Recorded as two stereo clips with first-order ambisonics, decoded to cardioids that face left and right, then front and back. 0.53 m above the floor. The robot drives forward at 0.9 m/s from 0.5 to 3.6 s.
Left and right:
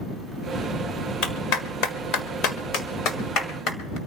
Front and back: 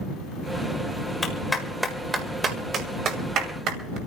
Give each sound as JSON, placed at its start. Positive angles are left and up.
{"t": 1.2, "sound": "a clap", "azimuth_deg": 70, "distance_m": 1.7}